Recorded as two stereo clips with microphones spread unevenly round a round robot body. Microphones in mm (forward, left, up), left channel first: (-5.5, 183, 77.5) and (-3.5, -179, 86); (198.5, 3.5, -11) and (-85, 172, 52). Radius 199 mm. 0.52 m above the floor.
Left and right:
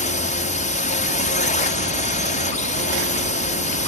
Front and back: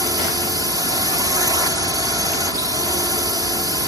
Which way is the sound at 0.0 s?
60° left.